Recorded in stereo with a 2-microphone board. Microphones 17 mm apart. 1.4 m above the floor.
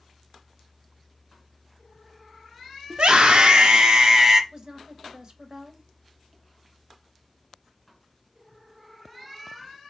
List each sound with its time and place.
2.9 s a scream: 75° right (ahead or behind), 0.9 m; by 4.4 s 30° right (ahead or behind), 0.7 m
4.5 s a woman speaking: 45° right (ahead or behind), 1.0 m